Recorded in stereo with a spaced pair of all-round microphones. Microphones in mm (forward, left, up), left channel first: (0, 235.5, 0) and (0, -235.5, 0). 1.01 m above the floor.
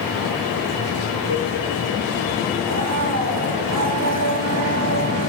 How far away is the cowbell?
About 4.5 m.